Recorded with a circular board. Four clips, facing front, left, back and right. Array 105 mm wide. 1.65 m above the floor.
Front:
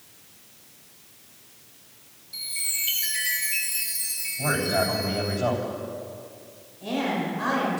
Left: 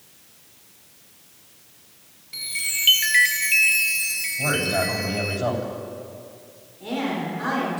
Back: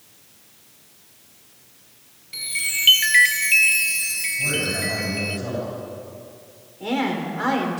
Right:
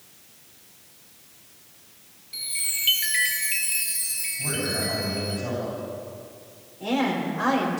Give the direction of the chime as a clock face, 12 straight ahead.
7 o'clock.